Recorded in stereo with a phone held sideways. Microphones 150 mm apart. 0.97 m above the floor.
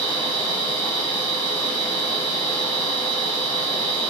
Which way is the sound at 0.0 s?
35° left (ahead or behind).